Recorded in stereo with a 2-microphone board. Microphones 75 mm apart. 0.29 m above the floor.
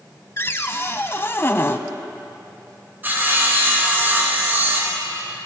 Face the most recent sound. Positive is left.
turn(degrees=-25)  # may be behind; listen again after turning